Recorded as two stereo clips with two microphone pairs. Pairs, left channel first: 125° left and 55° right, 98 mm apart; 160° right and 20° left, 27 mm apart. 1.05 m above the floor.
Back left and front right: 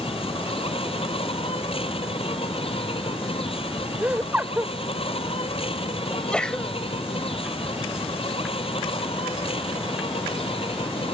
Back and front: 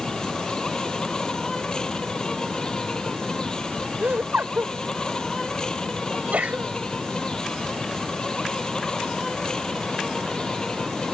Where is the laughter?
20° left.